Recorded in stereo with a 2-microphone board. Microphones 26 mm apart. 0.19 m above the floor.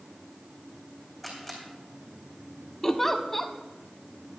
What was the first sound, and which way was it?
A camera shutter, centre (ahead or behind).